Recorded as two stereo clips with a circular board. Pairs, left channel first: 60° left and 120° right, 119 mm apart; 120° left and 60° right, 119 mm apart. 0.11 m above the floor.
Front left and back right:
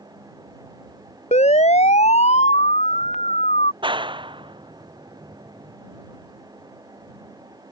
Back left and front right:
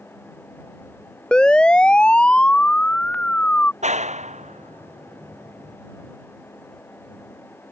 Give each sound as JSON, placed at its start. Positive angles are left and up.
{"t": 1.3, "sound": "a siren", "azimuth_deg": 35}
{"t": 3.8, "sound": "a clap", "azimuth_deg": -70}